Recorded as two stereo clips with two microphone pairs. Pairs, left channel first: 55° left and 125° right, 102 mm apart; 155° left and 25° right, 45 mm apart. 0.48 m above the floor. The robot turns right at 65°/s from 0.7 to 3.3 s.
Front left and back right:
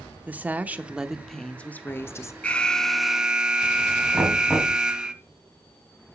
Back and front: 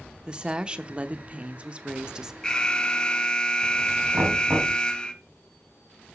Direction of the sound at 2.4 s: 110° left.